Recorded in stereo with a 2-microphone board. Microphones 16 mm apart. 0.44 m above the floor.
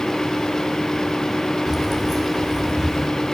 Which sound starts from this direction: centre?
Keys jangling, at 1.7 s.